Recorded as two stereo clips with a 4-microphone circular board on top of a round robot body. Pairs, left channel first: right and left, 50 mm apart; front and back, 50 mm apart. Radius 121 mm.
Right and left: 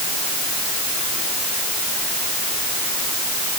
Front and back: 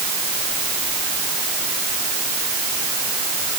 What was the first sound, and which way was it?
Only background noise.